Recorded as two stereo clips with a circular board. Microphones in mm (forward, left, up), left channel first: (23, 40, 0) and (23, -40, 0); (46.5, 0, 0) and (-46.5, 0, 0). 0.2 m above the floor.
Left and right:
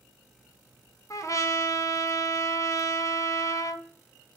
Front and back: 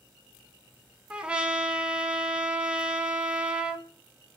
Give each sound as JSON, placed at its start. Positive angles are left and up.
{"t": 1.1, "sound": "a trumpet", "azimuth_deg": 105, "distance_m": 0.8}